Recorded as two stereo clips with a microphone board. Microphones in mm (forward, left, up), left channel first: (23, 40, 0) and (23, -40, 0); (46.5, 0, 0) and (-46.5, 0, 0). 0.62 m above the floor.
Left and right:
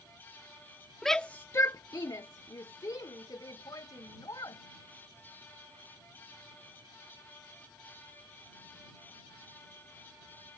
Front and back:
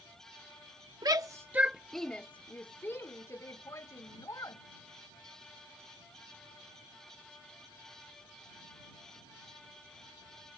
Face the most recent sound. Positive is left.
turn(degrees=50)